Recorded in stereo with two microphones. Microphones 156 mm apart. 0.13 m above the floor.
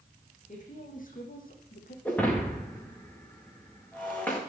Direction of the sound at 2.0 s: 10° left (ahead or behind).